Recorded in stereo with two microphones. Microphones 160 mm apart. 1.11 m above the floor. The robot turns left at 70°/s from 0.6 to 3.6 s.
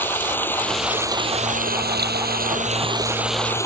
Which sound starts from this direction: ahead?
Running water, at 0.0 s.